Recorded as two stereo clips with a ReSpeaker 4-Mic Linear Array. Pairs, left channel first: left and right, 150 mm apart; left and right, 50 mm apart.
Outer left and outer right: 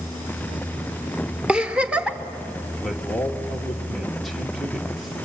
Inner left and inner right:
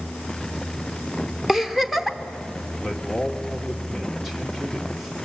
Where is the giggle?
5° right (ahead or behind), 1.0 m.